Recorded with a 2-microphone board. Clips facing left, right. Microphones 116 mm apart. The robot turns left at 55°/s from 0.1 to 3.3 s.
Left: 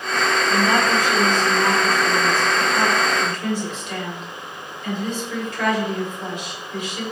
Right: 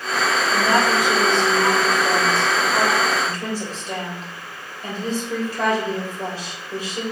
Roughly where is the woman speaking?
Ahead.